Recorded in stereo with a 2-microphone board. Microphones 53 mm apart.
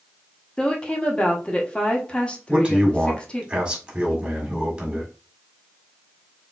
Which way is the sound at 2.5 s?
20° right (ahead or behind).